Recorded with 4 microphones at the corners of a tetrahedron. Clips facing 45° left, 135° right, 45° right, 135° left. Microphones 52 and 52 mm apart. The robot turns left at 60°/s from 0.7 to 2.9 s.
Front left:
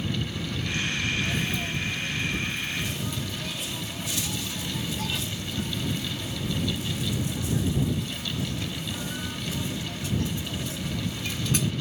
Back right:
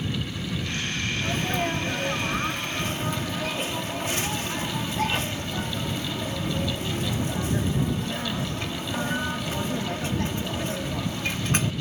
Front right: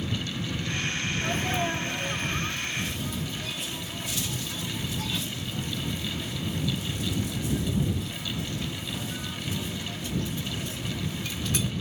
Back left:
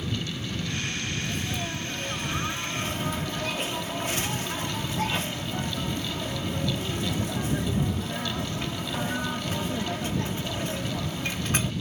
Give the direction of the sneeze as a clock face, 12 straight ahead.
3 o'clock.